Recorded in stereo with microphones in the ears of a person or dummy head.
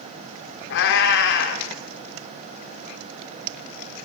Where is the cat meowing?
55° left (ahead or behind), 1.6 m.